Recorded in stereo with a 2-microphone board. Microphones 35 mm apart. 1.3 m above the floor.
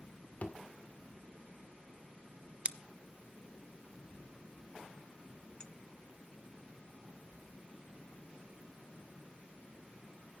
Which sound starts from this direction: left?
A thud, at 0.4 s.